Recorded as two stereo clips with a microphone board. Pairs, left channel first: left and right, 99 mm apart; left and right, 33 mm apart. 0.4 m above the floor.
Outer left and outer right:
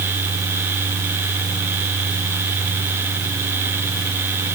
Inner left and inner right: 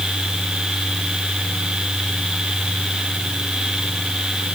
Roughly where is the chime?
No chime in this recording.